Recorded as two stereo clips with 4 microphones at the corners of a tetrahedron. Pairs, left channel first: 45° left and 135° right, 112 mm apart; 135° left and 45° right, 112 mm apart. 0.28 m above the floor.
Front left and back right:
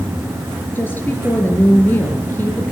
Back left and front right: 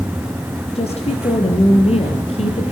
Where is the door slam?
I don't hear a door slam.